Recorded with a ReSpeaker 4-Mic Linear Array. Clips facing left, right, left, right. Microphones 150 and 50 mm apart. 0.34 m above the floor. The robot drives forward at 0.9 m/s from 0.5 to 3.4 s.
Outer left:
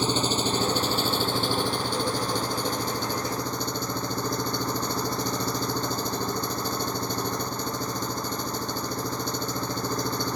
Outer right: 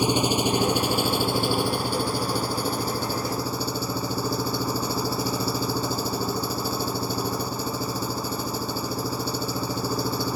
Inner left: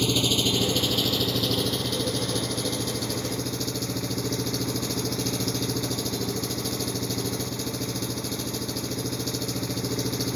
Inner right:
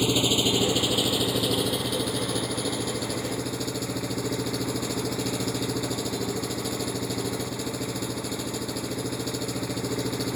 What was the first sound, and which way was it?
An engine running, 10° right (ahead or behind).